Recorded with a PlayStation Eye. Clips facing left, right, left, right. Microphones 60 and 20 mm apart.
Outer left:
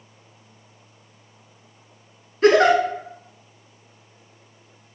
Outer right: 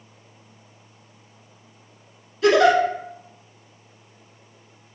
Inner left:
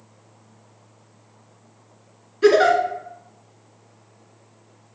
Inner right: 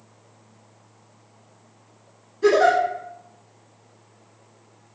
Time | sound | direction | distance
2.4 | a giggle | 40° left (ahead or behind) | 0.7 m